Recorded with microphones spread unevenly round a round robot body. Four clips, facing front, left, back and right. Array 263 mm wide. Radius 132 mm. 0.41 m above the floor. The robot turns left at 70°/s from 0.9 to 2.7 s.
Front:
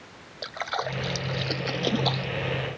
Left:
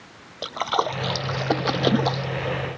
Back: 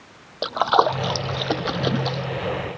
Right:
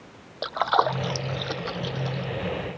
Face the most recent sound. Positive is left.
turn(degrees=45)